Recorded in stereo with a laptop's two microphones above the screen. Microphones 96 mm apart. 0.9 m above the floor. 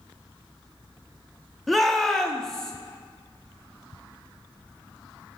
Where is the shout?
Centre (ahead or behind), 1.9 m; by 2.7 s 5° left (ahead or behind), 2.5 m.